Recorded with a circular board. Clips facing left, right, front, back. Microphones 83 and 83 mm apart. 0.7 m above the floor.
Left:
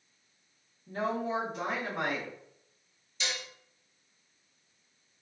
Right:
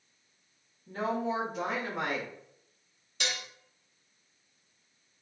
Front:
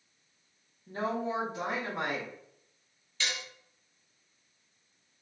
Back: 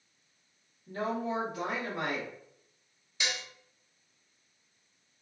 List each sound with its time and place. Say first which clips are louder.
0.9 s a woman speaking: right 1 dB, even; 5° left, 0.9 m
3.2 s dishes clattering: right 1 dB, back 1 dB; 110° right, 0.6 m